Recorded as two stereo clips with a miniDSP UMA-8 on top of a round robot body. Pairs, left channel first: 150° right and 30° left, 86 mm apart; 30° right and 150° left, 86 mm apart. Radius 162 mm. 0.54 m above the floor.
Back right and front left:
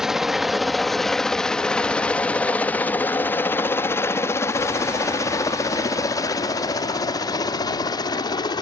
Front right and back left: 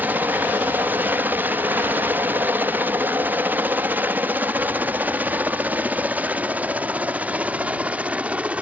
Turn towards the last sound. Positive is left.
turn(degrees=-140)